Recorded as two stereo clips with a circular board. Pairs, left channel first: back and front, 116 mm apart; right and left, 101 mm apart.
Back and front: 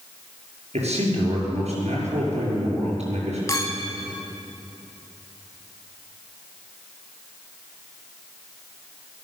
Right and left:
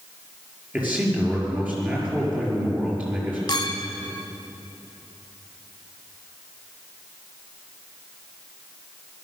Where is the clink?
125° right, 1.1 m.